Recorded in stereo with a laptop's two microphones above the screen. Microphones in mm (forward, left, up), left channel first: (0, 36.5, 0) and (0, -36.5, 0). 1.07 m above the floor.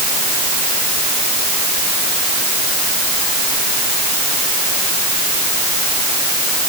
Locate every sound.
Only background noise.